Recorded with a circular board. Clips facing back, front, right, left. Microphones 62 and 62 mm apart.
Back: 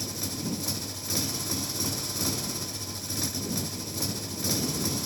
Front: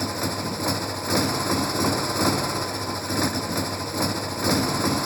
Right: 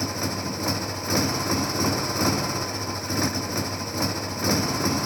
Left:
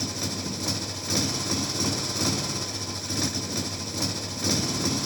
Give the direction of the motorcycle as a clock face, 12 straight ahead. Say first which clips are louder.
Front 8 dB, right 4 dB; 1 o'clock.